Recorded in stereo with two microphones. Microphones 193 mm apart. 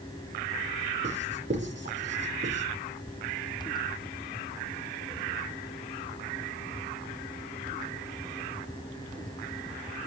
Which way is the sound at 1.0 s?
70° right (ahead or behind).